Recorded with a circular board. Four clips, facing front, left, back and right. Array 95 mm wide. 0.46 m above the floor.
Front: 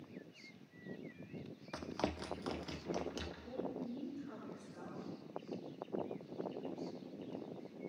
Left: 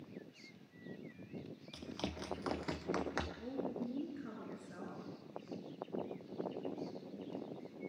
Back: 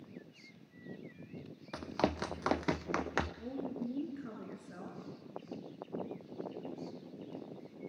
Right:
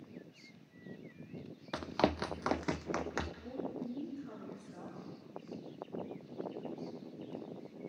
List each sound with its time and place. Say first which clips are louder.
1.7 s running footsteps: right 12 dB, back 6 dB; 95° right, 0.7 m; by 3.3 s straight behind, 1.3 m
3.4 s a woman speaking: even, back 3 dB; 150° left, 6 m